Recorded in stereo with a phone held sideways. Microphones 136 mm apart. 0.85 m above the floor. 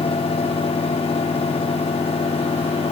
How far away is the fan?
About 0.7 m.